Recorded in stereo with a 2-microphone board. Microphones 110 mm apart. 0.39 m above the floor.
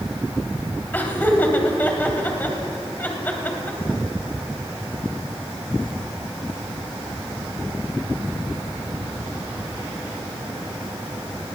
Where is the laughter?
15° left (ahead or behind), 2.5 m.